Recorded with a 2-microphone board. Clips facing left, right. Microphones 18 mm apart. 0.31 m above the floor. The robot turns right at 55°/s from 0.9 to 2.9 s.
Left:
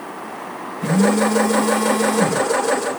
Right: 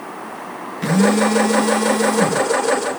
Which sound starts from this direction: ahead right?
A phone buzzing, at 0.8 s.